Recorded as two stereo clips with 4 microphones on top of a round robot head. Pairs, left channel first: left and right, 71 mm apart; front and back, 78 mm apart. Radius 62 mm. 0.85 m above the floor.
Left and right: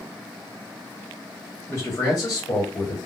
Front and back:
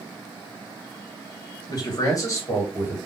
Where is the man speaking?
30° left, 1.6 m; by 3.0 s 60° left, 2 m.